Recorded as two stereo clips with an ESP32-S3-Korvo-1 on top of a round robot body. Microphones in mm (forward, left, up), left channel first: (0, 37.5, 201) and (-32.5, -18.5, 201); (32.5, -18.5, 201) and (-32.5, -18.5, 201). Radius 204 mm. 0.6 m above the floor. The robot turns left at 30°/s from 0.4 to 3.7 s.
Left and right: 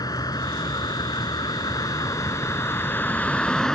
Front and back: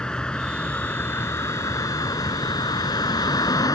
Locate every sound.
0.0 s a vehicle: 75° left; by 3.8 s 25° right